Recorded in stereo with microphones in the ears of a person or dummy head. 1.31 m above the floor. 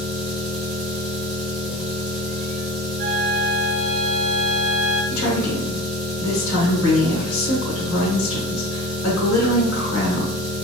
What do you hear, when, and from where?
0.0 s an engine running: 5° right (ahead or behind), 1.0 m
3.0 s a flute: 55° right (ahead or behind), 1.1 m
5.1 s a woman speaking: 70° left (ahead or behind), 1.7 m